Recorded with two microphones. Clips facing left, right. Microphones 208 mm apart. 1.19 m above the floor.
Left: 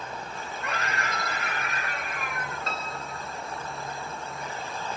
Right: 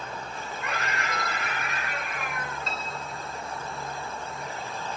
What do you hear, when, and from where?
0.6 s a scream: 35° left (ahead or behind), 9 m; by 2.7 s 45° left (ahead or behind), 8.5 m
2.7 s a piano: 50° left (ahead or behind), 1.9 m